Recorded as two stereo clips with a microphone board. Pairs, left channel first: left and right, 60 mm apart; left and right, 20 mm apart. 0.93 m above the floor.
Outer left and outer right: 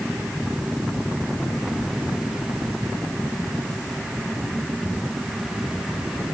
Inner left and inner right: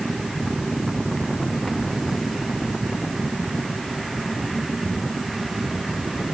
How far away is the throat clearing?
No throat clearing in this recording.